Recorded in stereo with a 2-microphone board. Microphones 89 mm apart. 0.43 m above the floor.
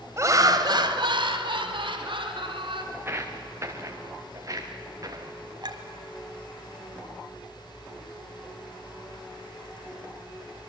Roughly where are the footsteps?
Right.